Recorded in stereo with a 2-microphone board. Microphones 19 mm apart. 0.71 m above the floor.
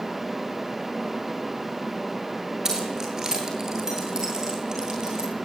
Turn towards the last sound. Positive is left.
turn(degrees=-40)  # may be behind; listen again after turning